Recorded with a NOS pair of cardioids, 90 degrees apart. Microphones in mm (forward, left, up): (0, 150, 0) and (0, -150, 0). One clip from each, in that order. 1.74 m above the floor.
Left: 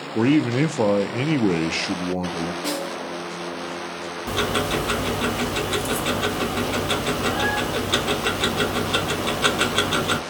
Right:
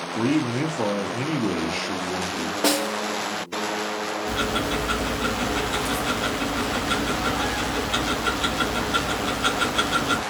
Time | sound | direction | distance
0.1 | a man speaking | 25° left | 0.5 m
2.6 | a snare drum | 55° right | 0.6 m
4.3 | ticking | 45° left | 1.2 m